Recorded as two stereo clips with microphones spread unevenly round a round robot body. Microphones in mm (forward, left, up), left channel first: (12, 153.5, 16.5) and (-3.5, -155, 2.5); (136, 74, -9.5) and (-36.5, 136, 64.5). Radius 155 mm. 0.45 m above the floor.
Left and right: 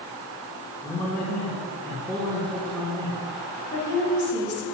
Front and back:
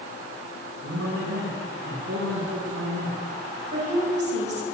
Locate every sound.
0.8 s a man speaking: 170° left, 5 m
3.7 s a woman speaking: 140° left, 4 m